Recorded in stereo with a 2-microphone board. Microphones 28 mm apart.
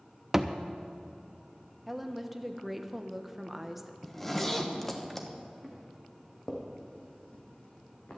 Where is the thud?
15° right (ahead or behind), 0.5 m.